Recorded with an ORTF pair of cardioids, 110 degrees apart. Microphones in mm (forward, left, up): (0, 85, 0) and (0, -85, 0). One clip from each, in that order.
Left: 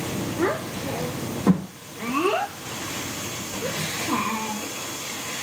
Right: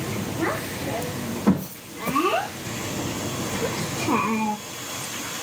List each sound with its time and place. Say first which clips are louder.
0.3 s a child speaking: left 2 dB; 20° left, 4 m; by 4.6 s 75° right, 1.4 m